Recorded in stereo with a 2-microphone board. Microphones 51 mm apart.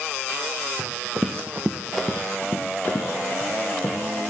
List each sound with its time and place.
0.8 s running footsteps: 75° right (ahead or behind), 1.9 m; by 4.2 s 65° left (ahead or behind), 4 m